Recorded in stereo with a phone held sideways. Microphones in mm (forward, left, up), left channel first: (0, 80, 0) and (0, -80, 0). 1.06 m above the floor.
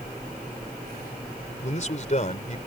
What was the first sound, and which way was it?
A man speaking, 50° left (ahead or behind).